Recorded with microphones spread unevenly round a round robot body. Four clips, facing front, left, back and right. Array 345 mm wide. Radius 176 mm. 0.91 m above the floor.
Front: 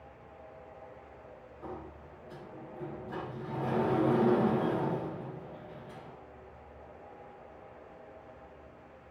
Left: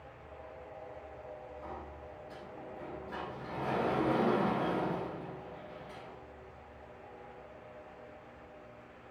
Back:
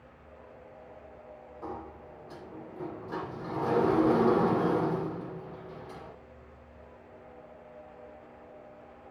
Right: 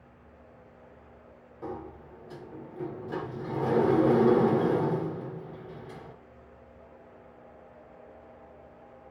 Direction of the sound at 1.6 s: 120° right.